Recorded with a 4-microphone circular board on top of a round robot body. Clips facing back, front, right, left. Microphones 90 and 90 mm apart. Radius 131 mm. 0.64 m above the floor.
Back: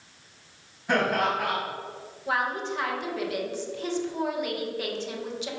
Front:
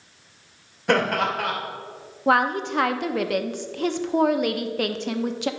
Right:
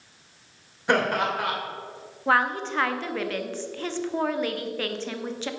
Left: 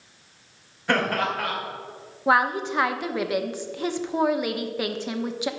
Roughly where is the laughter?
Ahead.